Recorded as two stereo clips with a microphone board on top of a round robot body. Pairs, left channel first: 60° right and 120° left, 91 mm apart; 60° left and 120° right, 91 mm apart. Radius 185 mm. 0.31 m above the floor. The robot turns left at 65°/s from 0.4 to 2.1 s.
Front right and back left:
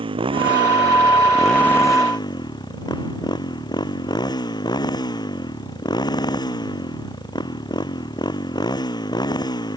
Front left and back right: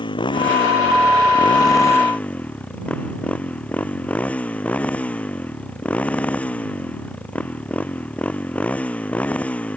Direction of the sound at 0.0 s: 95° left.